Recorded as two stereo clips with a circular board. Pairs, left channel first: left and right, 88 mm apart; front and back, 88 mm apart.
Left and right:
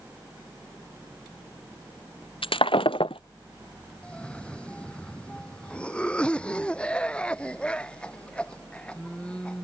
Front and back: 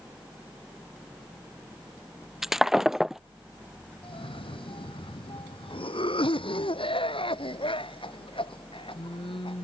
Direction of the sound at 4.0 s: 10° left.